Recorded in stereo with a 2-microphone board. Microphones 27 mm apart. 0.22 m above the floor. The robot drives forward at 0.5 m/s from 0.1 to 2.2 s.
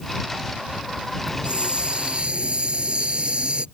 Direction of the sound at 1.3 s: 40° right (ahead or behind).